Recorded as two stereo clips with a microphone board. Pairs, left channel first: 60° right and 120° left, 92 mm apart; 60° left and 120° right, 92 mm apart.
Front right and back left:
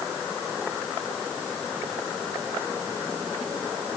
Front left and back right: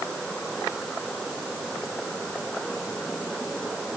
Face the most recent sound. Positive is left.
No sound to turn to.